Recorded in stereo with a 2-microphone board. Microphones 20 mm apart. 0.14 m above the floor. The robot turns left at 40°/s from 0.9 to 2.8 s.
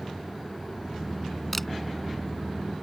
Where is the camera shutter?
10° left (ahead or behind).